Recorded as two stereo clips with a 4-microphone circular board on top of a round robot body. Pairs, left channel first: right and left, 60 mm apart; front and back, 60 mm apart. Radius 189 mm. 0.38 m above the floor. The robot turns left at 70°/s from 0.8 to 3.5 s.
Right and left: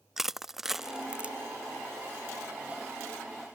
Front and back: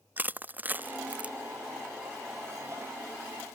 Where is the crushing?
170° left; by 1.4 s 130° left.